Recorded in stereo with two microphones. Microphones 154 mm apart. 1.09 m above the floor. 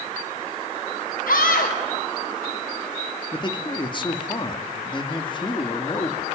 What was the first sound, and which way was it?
A scream, 85° left.